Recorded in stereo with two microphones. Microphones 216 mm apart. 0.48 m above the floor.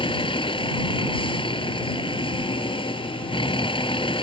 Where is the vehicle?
25° left (ahead or behind).